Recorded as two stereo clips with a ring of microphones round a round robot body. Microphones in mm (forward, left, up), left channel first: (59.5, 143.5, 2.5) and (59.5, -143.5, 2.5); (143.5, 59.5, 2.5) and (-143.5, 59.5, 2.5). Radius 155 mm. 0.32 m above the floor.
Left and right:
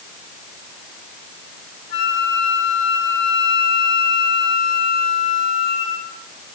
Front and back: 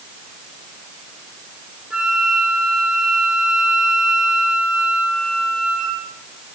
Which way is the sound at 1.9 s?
95° left.